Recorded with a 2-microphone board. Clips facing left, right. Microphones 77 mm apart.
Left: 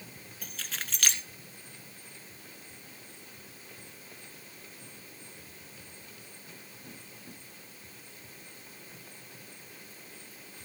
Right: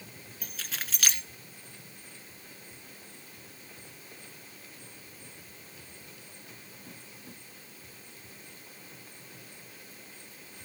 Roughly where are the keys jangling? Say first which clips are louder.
Even; centre.